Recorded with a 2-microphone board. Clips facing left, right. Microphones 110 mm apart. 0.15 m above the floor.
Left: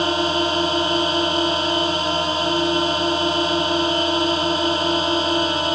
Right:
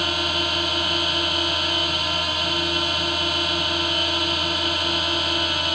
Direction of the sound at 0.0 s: 30° left (ahead or behind).